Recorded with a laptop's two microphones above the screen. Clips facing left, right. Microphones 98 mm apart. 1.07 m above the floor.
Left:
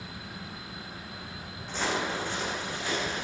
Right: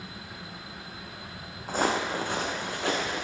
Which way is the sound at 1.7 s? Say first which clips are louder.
Right 4 dB; 40° right (ahead or behind).